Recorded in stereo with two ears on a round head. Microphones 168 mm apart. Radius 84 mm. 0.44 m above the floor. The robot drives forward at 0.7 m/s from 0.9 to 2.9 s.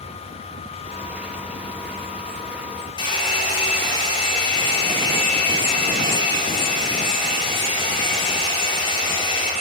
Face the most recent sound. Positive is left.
turn(degrees=25)  # may be behind; listen again after turning